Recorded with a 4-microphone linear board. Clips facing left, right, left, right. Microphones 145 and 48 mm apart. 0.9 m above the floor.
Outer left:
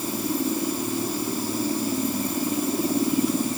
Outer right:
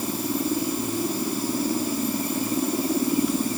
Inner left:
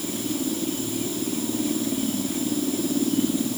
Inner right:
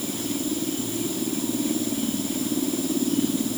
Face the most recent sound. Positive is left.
No sound to turn to.